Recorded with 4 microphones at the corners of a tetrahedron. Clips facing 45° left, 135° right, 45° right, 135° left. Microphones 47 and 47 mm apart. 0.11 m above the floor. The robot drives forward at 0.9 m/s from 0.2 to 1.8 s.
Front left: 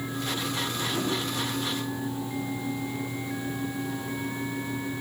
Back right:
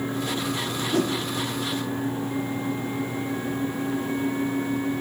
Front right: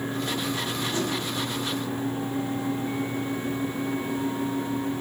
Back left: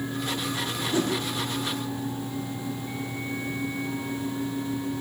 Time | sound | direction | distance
0.9 | a whoosh | 155° right | 5.5 m